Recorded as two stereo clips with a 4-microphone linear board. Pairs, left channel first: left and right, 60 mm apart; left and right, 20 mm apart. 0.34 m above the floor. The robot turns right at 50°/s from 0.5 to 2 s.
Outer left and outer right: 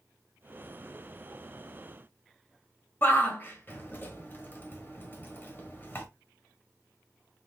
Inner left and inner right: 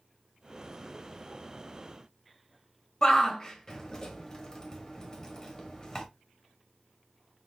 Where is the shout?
35° left (ahead or behind), 1.3 m.